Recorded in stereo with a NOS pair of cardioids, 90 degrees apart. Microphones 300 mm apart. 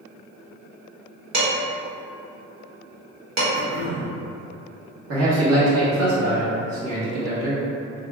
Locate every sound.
1.3 s dishes clattering: 60° right, 1.9 m
3.5 s throat clearing: 65° right, 1.9 m
5.1 s a man speaking: 55° right, 1.5 m